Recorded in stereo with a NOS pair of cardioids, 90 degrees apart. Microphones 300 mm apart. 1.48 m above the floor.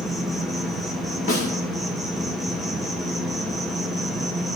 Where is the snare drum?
25° left, 1.6 m.